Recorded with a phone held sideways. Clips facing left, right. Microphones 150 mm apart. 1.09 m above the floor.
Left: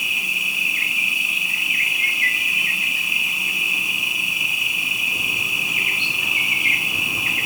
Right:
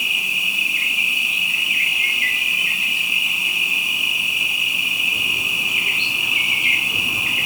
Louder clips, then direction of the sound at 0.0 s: Right 1 dB; 25° right (ahead or behind).